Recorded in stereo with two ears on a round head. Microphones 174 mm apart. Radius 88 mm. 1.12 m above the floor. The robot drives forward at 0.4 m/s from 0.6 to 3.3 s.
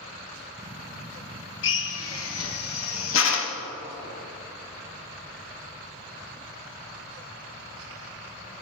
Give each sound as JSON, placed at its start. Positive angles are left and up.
{"t": 1.6, "sound": "a drill", "side_deg": 65, "distance_m": 1.0}